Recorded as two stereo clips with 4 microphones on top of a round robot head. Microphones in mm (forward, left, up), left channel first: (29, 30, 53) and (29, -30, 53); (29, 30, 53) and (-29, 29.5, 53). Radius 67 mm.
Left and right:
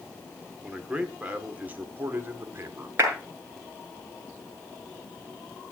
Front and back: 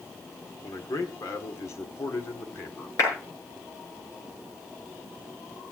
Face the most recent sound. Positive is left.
turn(degrees=-40)